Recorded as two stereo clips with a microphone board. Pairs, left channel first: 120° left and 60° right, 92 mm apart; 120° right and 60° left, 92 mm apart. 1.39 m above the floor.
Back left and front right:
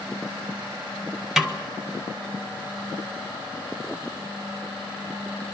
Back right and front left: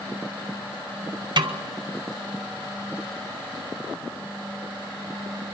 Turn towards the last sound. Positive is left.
turn(degrees=25)